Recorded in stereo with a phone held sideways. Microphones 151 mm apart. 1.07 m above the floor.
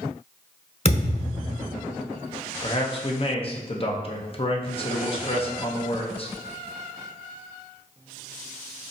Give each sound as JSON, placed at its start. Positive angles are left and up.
{"t": 0.8, "sound": "a thud", "side_deg": 45, "distance_m": 1.1}
{"t": 2.6, "sound": "a man speaking", "side_deg": 40, "distance_m": 0.7}